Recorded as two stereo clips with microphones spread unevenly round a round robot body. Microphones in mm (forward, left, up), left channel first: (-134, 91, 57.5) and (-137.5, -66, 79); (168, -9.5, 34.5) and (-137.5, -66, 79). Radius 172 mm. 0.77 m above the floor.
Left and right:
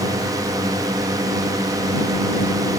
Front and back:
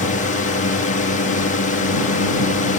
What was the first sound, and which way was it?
A drone, 25° right.